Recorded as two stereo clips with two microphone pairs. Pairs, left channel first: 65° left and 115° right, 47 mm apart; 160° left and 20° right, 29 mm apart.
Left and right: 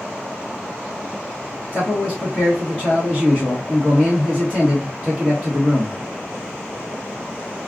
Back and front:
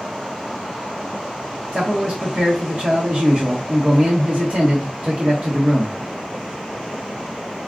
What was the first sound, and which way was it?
A man speaking, 5° left.